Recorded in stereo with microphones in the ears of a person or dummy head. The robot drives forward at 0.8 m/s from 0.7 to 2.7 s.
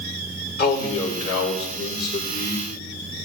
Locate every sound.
0.6 s a man speaking: 65° left (ahead or behind), 4 m; by 2.6 s 85° left, 4 m